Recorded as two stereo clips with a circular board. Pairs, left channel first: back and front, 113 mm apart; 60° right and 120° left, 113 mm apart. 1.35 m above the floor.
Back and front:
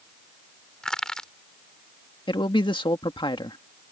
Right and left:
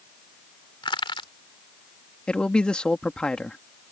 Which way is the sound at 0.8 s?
95° right.